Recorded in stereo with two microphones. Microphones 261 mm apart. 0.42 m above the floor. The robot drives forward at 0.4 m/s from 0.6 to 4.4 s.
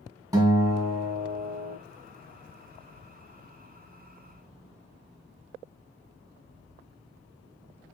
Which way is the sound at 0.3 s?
15° right (ahead or behind).